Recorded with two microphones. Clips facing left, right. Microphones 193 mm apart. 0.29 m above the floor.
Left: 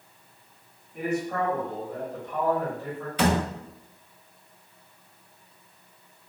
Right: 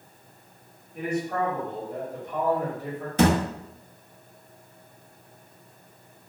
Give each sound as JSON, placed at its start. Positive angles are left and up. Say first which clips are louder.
{"t": 0.9, "sound": "a man speaking", "louder": "even", "side_deg": 5, "distance_m": 1.8}
{"t": 3.2, "sound": "a thud", "louder": "right 3 dB", "side_deg": -45, "distance_m": 0.6}